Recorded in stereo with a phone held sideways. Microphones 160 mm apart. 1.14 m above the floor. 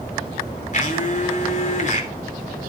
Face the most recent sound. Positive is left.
turn(degrees=50)  # may be behind; listen again after turning